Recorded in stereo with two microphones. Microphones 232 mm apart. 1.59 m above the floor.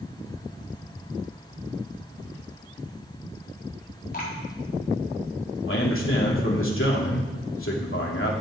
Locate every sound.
4.1 s dripping: 45° left (ahead or behind), 4.5 m
5.7 s a man speaking: 70° left (ahead or behind), 3 m